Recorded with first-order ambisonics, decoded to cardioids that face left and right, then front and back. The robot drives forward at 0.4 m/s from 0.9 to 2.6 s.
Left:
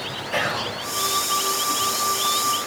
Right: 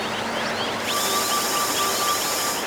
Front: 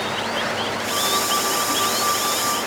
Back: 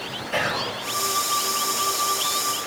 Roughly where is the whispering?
Behind left.